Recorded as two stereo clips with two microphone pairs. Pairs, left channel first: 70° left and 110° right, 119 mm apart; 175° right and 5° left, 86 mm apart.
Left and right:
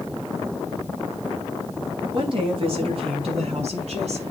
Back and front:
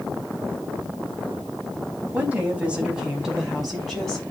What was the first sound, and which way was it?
A woman speaking, 65° right.